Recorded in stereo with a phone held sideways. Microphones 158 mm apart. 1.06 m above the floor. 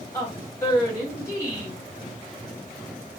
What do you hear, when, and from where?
0.1 s a woman speaking: 20° left (ahead or behind), 1.7 m